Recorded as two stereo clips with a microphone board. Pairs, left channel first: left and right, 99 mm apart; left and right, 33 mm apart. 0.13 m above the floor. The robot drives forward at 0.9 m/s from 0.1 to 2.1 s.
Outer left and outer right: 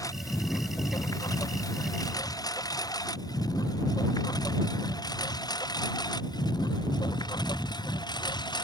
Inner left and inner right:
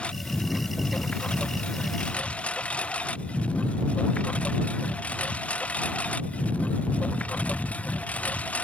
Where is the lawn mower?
35° left (ahead or behind); by 8.6 s 45° left (ahead or behind).